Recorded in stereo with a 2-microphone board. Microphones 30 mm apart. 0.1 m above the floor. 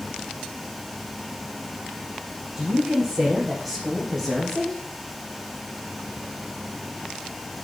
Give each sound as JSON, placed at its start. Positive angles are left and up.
{"t": 2.6, "sound": "a woman speaking", "side_deg": -10, "distance_m": 6.0}